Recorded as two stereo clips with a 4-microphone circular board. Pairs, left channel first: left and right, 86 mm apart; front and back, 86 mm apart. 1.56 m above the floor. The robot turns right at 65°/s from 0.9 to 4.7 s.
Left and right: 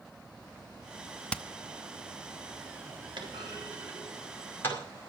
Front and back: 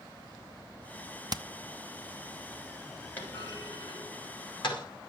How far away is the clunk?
About 5 m.